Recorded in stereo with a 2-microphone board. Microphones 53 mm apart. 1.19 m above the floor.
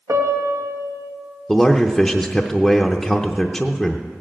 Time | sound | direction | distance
0.1 | a piano | 80° right | 1.6 m
1.5 | a man speaking | 5° left (ahead or behind) | 0.6 m